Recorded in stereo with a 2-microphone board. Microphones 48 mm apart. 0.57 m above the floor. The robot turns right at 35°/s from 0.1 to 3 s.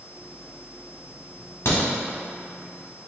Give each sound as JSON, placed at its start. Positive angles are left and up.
{"t": 1.6, "sound": "a crack", "side_deg": 75, "distance_m": 1.6}